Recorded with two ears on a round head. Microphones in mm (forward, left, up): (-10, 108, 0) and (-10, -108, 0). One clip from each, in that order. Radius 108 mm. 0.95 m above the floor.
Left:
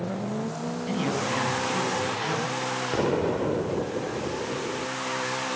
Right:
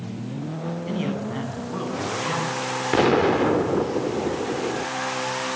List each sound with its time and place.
0.9 s a man speaking: 10° left (ahead or behind), 9.5 m
2.9 s an explosion: 55° right (ahead or behind), 1.0 m